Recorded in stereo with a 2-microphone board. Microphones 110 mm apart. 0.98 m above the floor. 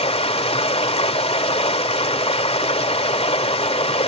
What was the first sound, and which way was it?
Running water, 70° left (ahead or behind).